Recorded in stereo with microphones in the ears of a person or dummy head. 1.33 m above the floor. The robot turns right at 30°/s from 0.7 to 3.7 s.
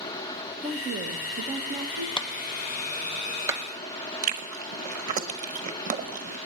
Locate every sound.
0.6 s a woman speaking: 140° right, 1.1 m; by 2.1 s 100° right, 1.1 m
2.2 s a clap: 20° left (ahead or behind), 0.6 m; by 3.6 s 25° right (ahead or behind), 0.6 m
4.2 s chewing: 45° right (ahead or behind), 0.9 m